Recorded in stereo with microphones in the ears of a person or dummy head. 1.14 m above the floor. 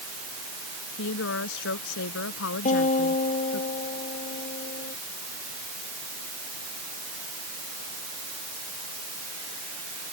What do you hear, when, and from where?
1.0 s a woman speaking: 75° left (ahead or behind)
2.6 s a guitar: 40° left (ahead or behind)